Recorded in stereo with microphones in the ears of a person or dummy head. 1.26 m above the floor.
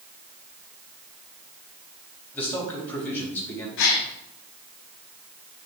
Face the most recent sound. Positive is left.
turn(degrees=65)  # may be behind; listen again after turning